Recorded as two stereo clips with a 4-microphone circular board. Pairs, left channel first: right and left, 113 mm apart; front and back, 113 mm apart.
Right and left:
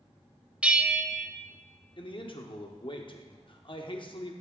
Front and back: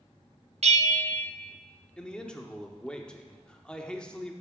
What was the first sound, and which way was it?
A bell, 170° left.